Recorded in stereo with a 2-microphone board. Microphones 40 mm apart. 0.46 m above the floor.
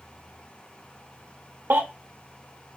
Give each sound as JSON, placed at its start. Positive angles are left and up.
{"t": 1.7, "sound": "a baby crying", "side_deg": -60, "distance_m": 0.6}